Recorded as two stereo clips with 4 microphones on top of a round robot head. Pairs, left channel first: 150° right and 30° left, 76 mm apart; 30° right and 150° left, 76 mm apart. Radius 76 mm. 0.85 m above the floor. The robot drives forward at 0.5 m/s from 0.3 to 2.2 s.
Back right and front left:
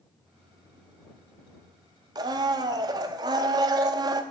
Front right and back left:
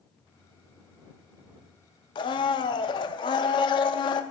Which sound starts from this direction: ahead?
A blender, at 2.1 s.